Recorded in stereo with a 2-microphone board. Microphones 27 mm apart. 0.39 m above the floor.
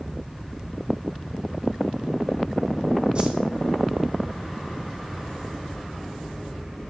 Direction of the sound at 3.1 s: 40° right (ahead or behind).